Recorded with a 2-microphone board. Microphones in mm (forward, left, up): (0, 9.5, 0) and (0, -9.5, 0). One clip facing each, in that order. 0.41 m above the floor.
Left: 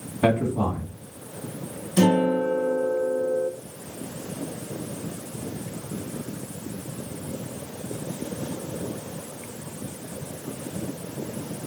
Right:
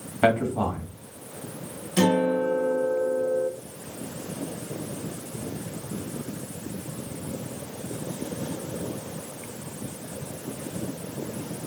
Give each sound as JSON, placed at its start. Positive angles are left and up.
{"t": 0.2, "sound": "a man speaking", "side_deg": -65, "distance_m": 1.7}
{"t": 2.0, "sound": "a guitar", "side_deg": -35, "distance_m": 2.0}